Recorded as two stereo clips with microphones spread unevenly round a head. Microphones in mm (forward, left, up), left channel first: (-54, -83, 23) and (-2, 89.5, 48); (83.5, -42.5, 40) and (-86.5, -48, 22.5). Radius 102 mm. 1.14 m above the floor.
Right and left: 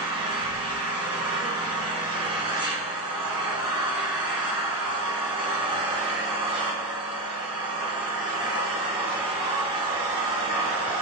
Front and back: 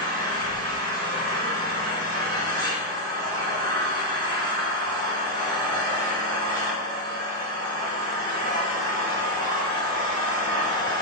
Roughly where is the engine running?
Behind left.